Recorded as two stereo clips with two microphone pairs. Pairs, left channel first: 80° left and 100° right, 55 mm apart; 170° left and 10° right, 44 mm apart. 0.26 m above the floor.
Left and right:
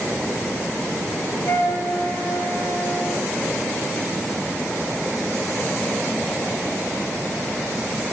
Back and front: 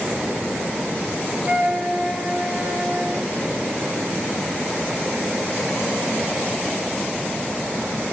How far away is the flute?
About 6.5 m.